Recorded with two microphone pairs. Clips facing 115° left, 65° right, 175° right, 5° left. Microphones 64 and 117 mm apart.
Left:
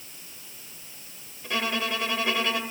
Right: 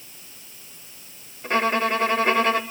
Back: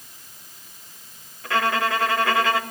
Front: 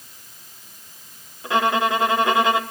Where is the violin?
55° right, 1.1 m.